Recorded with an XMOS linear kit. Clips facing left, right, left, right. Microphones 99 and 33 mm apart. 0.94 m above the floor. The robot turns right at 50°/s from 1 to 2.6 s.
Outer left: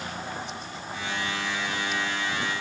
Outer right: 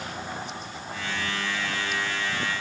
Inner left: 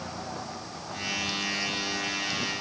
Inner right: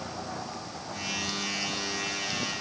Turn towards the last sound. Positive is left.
No sound to turn to.